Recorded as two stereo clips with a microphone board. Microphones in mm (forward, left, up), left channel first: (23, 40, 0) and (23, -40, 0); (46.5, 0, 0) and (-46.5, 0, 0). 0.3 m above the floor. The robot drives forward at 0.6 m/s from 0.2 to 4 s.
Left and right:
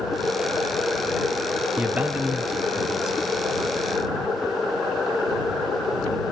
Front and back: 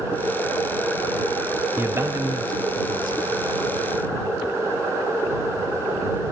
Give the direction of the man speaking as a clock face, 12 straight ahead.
5 o'clock.